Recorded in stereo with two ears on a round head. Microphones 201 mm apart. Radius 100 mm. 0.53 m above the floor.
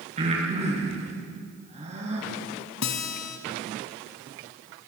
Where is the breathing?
30° right (ahead or behind), 5.5 m.